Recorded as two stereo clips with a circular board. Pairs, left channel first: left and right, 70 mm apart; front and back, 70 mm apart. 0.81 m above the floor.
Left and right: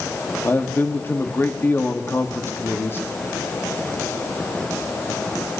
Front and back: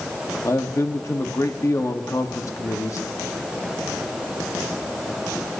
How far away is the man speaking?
About 1.2 m.